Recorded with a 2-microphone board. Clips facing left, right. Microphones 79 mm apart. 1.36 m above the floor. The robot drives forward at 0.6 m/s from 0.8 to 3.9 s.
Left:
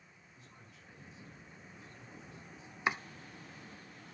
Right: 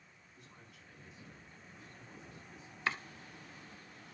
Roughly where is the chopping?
Centre.